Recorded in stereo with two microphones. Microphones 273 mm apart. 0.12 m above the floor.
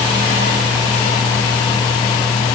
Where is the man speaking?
No man speaking in this recording.